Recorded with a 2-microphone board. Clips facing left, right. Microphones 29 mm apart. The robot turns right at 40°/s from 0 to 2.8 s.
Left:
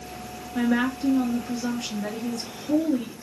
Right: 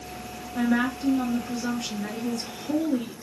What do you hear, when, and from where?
0.6 s a woman speaking: 15° left (ahead or behind), 1.1 m; by 3.1 s 10° right (ahead or behind), 1.1 m